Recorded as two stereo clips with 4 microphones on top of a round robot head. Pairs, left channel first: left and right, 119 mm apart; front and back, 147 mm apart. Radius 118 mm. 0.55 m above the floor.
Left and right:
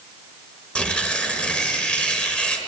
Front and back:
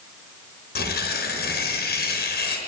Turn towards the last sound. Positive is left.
turn(degrees=10)